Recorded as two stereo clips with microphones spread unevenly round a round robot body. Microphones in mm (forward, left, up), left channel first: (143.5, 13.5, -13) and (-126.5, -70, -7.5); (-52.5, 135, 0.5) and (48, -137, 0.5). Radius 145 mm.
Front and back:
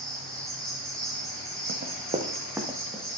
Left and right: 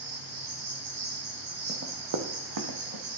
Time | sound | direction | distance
0.0 | an insect | 70° right | 3 m
1.7 | running footsteps | 125° right | 1.3 m